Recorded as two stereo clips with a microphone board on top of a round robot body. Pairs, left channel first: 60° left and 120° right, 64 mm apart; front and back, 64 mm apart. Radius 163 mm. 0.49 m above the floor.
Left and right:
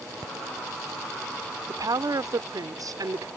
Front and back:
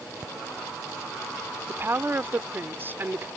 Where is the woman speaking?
125° right.